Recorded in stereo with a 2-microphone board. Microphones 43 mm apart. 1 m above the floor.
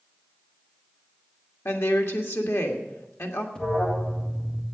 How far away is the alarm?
About 1.7 m.